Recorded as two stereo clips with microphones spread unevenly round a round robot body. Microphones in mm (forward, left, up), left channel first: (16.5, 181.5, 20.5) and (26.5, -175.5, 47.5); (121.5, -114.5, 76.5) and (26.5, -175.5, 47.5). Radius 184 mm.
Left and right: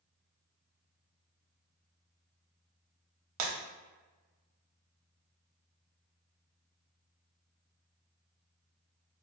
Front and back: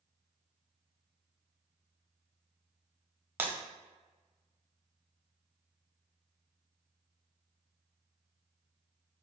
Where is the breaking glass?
75° right, 0.7 m.